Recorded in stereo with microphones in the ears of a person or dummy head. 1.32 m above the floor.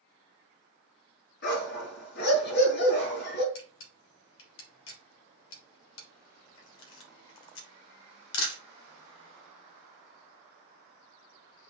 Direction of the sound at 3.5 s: 70° left (ahead or behind).